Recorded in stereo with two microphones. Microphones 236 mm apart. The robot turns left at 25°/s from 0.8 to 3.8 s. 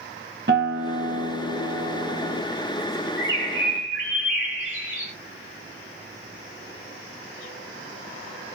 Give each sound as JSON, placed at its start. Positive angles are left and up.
{"t": 0.5, "sound": "a guitar", "azimuth_deg": -120, "distance_m": 0.6}
{"t": 3.2, "sound": "a bird", "side_deg": -15, "distance_m": 1.4}